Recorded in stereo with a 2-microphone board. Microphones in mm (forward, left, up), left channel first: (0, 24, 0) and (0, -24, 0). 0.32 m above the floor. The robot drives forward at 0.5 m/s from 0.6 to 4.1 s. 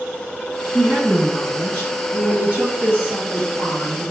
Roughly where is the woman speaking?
Right.